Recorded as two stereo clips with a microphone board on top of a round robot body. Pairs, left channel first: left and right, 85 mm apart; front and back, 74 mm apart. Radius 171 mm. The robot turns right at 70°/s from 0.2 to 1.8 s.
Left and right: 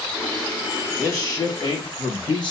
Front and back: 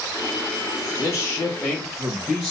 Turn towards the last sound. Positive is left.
turn(degrees=90)